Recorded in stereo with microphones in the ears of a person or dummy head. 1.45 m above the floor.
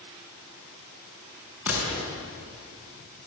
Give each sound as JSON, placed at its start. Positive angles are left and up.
{"t": 1.7, "sound": "a gunshot", "side_deg": -10, "distance_m": 6.5}